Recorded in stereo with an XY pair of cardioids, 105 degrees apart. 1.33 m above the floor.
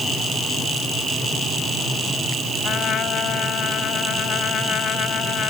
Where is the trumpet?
60° left.